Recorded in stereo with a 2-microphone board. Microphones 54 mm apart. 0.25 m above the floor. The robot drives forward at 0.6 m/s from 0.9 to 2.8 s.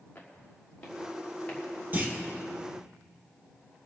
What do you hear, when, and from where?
0.1 s footsteps: 30° left (ahead or behind), 4.5 m; by 1.6 s 20° left (ahead or behind), 5.5 m
1.9 s a clunk: 35° right (ahead or behind), 2.5 m; by 2.2 s 30° right (ahead or behind), 2.5 m